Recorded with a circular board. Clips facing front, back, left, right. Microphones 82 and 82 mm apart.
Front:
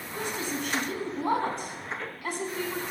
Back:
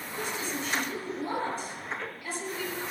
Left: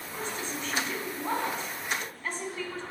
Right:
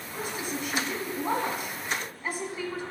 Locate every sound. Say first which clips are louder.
0.1 s a woman speaking: front 2 dB, right 2 dB; 10° right, 2.5 m